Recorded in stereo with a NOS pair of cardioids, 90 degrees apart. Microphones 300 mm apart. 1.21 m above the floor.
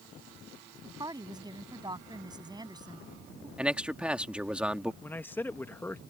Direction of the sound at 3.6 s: 5° right.